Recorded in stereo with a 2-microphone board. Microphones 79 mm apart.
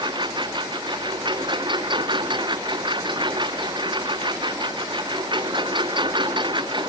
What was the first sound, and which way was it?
A lawn mower, 80° right.